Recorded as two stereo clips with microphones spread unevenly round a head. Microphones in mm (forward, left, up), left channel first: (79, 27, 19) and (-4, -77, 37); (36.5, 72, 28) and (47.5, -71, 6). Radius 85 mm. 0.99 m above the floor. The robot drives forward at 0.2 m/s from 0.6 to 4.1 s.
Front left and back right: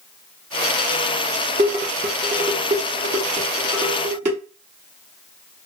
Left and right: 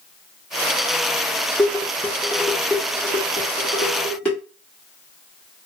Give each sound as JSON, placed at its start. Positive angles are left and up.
{"t": 1.6, "sound": "dishes clattering", "azimuth_deg": 175, "distance_m": 0.5}